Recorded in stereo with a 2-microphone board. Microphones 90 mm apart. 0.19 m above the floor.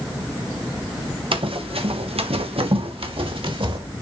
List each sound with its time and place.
1.3 s running footsteps: 65° right (ahead or behind), 1.7 m; by 3.8 s 60° right (ahead or behind), 2.5 m